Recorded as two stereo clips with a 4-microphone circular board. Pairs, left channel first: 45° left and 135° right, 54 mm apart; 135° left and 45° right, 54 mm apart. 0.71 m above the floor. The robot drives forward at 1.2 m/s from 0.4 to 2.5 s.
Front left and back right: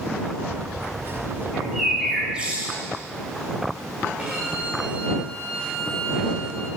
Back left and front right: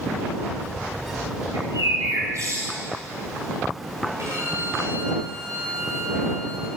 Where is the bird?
50° right, 3.5 m; by 2.8 s 65° right, 3 m.